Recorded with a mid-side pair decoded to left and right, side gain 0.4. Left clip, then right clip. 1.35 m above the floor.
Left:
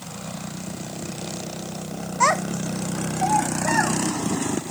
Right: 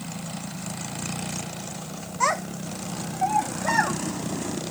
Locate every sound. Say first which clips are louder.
2.2 s a child speaking: left 4 dB; 35° left, 1.1 m; by 4.0 s straight ahead, 2 m